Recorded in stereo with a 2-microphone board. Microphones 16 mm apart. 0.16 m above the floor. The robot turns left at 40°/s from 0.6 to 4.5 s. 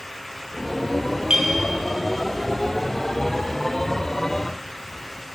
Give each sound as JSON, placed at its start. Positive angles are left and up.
{"t": 1.3, "sound": "a clink", "side_deg": -50, "distance_m": 2.5}